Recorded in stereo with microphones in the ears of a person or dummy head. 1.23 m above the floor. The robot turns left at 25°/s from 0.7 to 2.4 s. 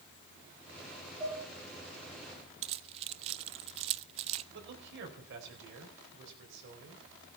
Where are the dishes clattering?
20° right (ahead or behind), 6 m; by 1.4 s 25° right (ahead or behind), 6 m.